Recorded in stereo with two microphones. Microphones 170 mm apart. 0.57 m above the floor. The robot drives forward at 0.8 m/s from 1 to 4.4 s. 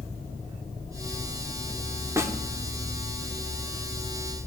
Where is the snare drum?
20° right (ahead or behind), 1.1 m; by 2.4 s 15° right (ahead or behind), 1.2 m.